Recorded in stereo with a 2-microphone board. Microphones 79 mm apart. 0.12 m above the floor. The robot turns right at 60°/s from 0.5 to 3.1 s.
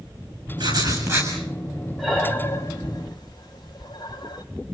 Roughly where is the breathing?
Centre.